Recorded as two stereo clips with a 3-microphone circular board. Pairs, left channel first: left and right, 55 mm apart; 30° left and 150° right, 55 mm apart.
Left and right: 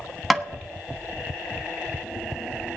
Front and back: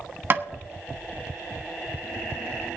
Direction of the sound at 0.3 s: Straight behind.